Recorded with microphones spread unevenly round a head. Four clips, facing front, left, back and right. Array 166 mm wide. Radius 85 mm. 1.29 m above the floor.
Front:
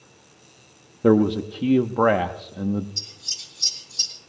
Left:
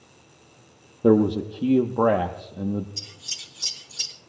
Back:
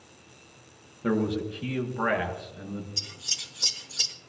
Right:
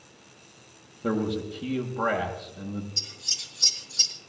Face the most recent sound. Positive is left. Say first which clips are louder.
# even, back 2 dB
turn(degrees=-155)